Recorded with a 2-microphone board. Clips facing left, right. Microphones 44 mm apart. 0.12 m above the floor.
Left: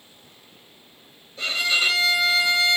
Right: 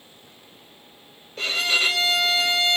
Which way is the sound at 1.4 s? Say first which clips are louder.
Even; 65° right (ahead or behind).